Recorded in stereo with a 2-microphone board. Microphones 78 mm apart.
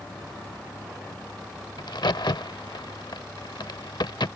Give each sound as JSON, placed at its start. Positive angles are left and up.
{"t": 1.8, "sound": "a crack", "side_deg": 70}